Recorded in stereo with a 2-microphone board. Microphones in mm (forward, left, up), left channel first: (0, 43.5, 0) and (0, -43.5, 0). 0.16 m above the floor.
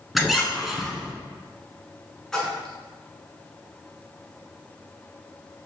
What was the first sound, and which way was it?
A squeak, centre (ahead or behind).